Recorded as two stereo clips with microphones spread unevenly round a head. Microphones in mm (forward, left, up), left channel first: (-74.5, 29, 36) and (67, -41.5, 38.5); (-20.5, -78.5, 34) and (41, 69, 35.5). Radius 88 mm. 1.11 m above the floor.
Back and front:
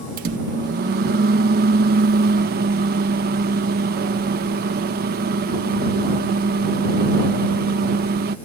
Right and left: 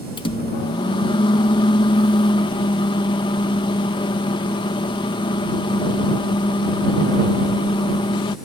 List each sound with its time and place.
0.2 s a microwave: 50° right